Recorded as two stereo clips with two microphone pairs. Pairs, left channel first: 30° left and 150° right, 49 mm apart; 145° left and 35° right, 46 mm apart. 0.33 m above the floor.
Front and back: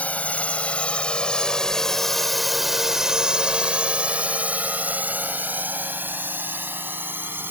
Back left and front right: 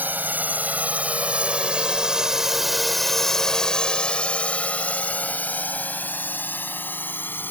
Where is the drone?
15° right; by 7.5 s 175° left.